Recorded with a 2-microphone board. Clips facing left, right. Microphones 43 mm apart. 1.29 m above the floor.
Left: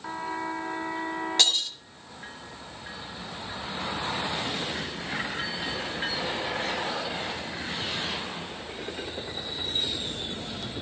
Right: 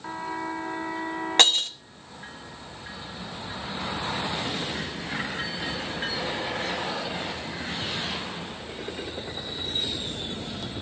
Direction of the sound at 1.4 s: 45° right (ahead or behind).